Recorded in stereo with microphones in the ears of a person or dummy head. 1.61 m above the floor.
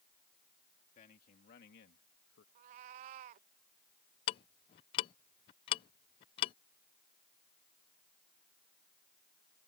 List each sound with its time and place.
0.9 s a man speaking: 45° left (ahead or behind); by 2.5 s 70° left (ahead or behind)
2.5 s a cat meowing: 30° right (ahead or behind)
4.3 s ticking: 30° left (ahead or behind)